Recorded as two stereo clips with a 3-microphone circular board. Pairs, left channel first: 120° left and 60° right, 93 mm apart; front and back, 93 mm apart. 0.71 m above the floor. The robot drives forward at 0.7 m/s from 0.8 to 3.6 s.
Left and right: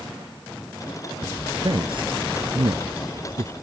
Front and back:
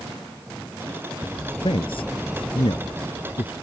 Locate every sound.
1.6 s a man speaking: 30° right